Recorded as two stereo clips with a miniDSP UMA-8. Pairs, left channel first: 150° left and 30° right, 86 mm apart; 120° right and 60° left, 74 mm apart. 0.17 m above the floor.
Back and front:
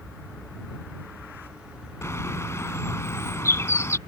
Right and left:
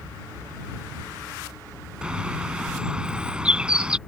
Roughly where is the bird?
Behind left.